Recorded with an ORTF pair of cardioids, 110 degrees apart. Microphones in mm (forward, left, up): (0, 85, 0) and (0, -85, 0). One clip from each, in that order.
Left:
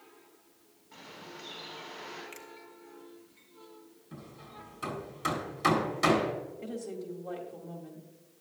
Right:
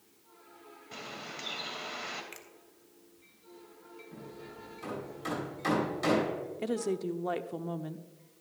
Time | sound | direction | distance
0.9 | a bird | 65° right | 2.5 m
2.3 | a finger snap | 10° right | 1.7 m
4.1 | hammering | 45° left | 3.5 m
6.6 | a woman speaking | 55° right | 1.0 m